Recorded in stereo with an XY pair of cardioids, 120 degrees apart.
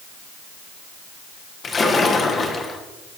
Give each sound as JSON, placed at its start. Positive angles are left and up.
{"t": 1.6, "sound": "a splash", "azimuth_deg": 30, "distance_m": 2.5}